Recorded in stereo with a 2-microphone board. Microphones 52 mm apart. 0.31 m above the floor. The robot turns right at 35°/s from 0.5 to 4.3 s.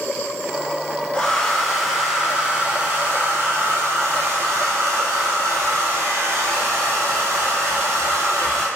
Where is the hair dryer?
160° left, 0.5 m; by 8.7 s 90° right, 0.5 m.